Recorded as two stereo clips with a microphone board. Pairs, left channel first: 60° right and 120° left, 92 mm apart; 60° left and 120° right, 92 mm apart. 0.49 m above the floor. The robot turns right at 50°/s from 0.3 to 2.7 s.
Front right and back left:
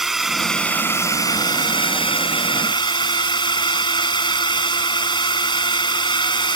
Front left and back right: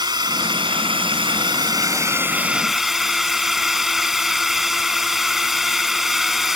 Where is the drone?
155° right; by 6.6 s 35° right.